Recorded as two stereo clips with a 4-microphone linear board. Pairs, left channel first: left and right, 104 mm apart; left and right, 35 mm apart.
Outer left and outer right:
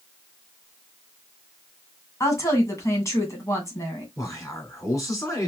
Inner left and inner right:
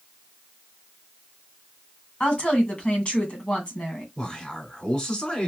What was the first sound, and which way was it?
A woman speaking, 30° left (ahead or behind).